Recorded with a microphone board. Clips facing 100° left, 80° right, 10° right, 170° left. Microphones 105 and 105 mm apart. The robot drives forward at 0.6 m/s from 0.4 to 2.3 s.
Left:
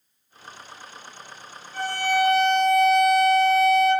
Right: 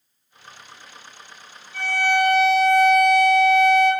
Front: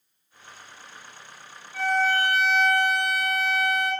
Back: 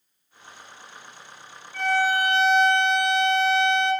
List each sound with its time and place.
1.7 s a violin: 65° left, 0.6 m; by 3.9 s 110° left, 0.6 m